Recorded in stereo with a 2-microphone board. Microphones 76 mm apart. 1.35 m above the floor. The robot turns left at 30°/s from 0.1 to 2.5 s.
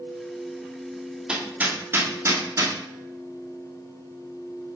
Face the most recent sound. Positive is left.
turn(degrees=-45)  # may be behind; listen again after turning